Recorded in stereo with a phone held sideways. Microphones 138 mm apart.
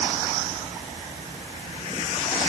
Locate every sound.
Only background noise.